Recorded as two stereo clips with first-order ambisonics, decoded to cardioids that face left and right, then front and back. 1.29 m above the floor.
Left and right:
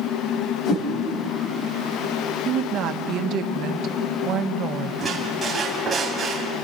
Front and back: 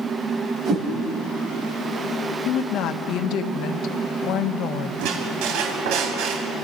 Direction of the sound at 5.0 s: 170° right.